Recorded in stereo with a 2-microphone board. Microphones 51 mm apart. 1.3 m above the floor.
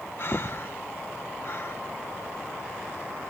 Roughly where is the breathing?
Left.